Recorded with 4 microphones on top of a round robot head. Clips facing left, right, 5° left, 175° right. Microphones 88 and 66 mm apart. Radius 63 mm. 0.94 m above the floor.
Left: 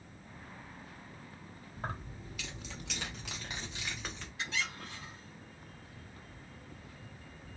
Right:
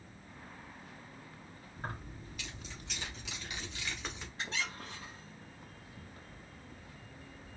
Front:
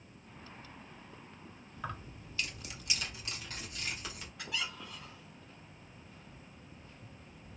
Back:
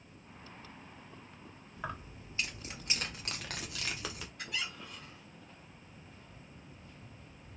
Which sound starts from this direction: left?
Keys jangling, at 1.8 s.